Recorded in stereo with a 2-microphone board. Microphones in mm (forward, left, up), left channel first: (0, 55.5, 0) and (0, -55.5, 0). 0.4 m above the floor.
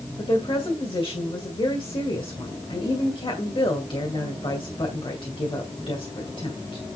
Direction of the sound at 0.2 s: 55° left (ahead or behind).